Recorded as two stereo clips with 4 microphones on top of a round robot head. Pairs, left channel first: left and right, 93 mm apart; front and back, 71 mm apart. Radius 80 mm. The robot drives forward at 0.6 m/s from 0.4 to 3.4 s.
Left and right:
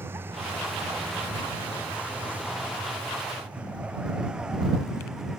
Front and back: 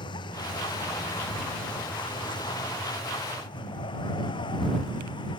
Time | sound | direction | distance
0.0 | a vehicle | 20° right | ?